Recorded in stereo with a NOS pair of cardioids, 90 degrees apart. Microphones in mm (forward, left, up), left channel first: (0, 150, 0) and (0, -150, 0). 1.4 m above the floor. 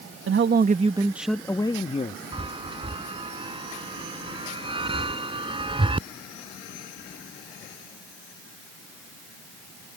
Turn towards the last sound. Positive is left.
turn(degrees=-15)